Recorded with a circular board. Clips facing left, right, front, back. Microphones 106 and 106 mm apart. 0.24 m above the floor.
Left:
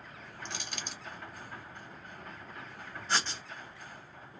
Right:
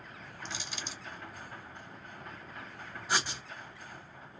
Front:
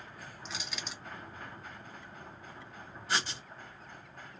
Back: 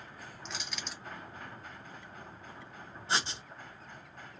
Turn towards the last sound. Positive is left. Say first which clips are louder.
# even, back 1 dB
turn(degrees=-155)